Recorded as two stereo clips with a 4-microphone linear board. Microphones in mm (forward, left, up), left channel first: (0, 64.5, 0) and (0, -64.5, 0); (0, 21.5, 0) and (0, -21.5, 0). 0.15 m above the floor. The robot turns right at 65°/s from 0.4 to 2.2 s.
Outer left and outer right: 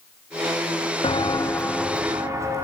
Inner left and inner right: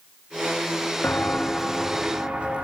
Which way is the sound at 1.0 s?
45° left (ahead or behind).